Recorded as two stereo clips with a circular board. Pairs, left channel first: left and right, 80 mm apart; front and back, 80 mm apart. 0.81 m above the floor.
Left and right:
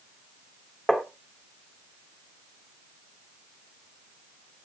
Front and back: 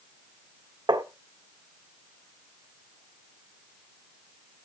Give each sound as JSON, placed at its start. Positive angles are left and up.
{"t": 0.9, "sound": "tapping", "azimuth_deg": 180, "distance_m": 1.6}